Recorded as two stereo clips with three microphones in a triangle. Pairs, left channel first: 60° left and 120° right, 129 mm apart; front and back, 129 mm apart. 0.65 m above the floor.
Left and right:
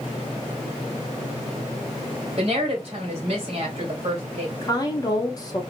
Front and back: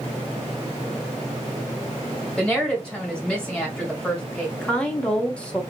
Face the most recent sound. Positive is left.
turn(degrees=75)